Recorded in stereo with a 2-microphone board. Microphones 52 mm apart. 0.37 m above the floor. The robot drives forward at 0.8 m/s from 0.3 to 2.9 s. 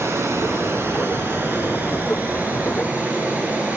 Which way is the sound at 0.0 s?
60° right (ahead or behind).